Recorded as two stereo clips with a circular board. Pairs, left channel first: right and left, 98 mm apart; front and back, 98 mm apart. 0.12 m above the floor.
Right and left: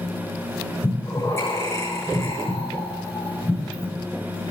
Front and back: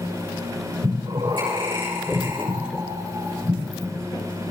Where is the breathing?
145° right, 7 m.